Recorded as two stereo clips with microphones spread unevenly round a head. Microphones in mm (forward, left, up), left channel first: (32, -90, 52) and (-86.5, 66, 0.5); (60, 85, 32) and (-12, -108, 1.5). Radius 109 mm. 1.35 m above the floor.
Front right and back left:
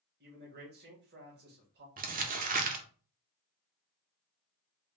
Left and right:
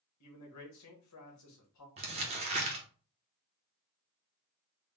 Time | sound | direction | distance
0.2 | a man speaking | 90° left | 1.5 m
2.0 | crumpling | 175° right | 0.8 m